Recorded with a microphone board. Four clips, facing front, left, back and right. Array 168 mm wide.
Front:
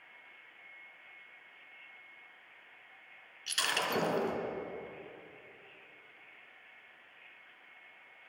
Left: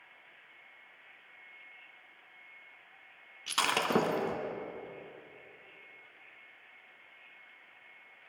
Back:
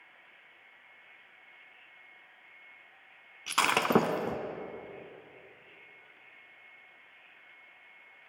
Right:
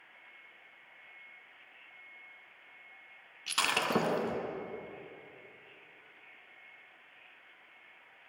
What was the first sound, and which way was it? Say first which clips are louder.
Breaking glass: left 2 dB, back 8 dB; 170° left.